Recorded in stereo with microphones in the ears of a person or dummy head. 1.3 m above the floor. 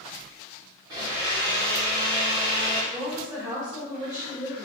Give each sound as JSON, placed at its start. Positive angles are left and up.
{"t": 0.9, "sound": "a blender", "side_deg": -20, "distance_m": 1.4}
{"t": 2.9, "sound": "a woman speaking", "side_deg": -15, "distance_m": 1.7}